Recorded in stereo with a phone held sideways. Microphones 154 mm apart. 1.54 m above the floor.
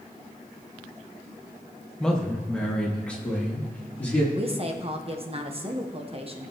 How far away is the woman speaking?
About 1.1 m.